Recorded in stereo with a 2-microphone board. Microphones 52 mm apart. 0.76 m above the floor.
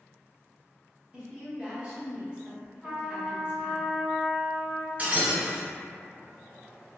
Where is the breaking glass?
30° right (ahead or behind), 1.0 m.